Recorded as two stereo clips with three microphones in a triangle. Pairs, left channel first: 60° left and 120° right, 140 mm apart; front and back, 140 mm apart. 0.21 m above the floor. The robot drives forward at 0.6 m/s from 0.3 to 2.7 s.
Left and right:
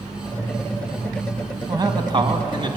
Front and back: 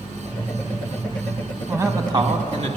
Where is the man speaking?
125° right, 1.1 m; by 2.8 s 155° right, 1.4 m.